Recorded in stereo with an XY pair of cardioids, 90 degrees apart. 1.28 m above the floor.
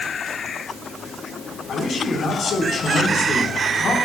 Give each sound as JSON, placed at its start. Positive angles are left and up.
{"t": 1.7, "sound": "a man speaking", "azimuth_deg": 60, "distance_m": 4.5}